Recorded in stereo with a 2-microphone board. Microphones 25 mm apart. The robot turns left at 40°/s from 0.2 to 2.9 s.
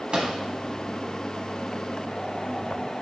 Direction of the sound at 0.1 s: 35° right (ahead or behind).